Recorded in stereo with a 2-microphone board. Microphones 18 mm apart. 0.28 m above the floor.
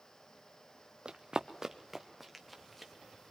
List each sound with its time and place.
1.1 s running footsteps: 50° right (ahead or behind), 1.3 m; by 2.9 s 5° left (ahead or behind), 3 m